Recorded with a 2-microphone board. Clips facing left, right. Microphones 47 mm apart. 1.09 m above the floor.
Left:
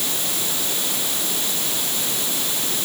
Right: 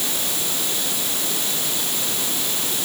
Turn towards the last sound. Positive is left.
No sound to turn to.